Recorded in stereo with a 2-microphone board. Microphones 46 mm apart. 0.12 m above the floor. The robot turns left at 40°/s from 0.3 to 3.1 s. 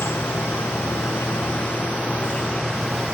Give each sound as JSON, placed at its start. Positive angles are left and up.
{"t": 0.0, "sound": "an insect", "azimuth_deg": 105}